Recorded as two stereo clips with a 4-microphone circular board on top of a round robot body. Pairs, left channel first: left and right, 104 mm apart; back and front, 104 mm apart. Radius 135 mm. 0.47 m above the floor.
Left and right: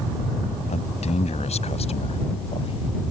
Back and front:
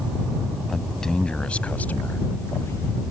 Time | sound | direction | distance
0.7 | a man speaking | 95° left | ?